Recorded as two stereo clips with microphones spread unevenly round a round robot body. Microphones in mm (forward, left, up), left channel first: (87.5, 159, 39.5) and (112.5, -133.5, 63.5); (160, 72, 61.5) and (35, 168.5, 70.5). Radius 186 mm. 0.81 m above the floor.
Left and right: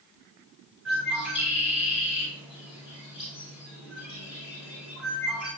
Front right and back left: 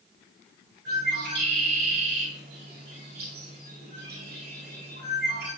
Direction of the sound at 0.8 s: 175° right.